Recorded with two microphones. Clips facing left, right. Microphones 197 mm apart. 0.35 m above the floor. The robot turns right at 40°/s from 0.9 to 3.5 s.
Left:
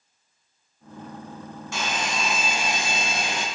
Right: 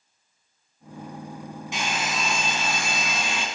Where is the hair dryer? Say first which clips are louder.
Left 1 dB; 20° right, 2 m; by 3.5 s 50° left, 2 m.